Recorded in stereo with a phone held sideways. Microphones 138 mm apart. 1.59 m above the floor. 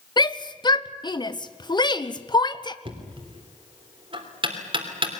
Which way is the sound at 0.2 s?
30° left (ahead or behind).